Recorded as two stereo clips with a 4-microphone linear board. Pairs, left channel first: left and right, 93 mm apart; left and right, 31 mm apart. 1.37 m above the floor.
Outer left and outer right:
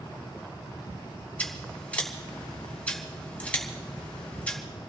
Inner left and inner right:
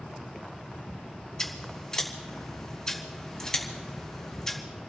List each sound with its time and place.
1.4 s scissors: 15° left (ahead or behind), 3.5 m